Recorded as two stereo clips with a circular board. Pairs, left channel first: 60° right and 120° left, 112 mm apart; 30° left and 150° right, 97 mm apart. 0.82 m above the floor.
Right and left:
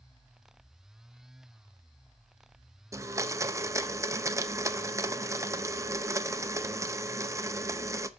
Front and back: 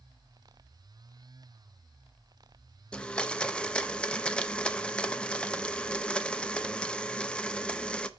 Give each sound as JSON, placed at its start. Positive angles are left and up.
{"t": 2.9, "sound": "a blender", "azimuth_deg": 100, "distance_m": 0.6}